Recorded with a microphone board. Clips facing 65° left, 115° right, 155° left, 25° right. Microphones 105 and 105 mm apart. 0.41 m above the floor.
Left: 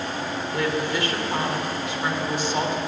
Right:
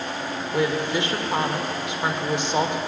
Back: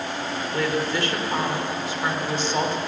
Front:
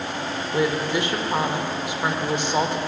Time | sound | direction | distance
0.5 | a woman speaking | 75° right | 1.1 m